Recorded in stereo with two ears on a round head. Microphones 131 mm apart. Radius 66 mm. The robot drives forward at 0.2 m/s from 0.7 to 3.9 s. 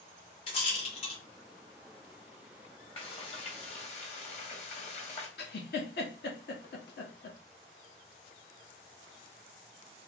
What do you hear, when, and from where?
0.5 s a rattle: 40° left (ahead or behind), 1.4 m
3.0 s frying: 40° left (ahead or behind), 1.1 m; by 5.3 s 45° left (ahead or behind), 1.0 m
5.4 s a giggle: 75° left (ahead or behind), 0.9 m